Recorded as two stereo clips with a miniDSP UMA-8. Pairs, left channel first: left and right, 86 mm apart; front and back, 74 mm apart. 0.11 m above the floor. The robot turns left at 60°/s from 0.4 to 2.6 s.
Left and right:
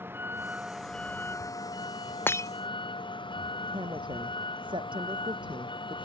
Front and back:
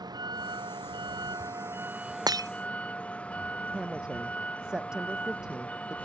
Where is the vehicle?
155° right; by 6.0 s 75° left.